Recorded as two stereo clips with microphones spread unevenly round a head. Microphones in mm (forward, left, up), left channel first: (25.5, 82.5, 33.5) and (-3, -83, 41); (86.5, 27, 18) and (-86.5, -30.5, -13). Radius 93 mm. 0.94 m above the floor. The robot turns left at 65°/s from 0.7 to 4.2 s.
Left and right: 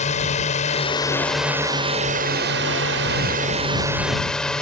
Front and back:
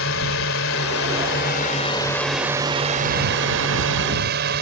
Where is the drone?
35° left; by 4.6 s 165° left.